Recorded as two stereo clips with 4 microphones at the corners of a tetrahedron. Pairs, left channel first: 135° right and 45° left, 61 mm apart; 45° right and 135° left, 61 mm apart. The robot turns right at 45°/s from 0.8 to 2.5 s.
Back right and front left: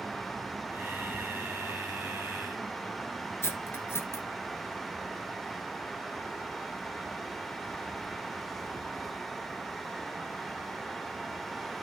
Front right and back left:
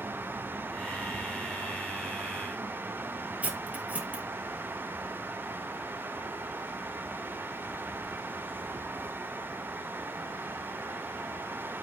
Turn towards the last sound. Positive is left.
turn(degrees=-170)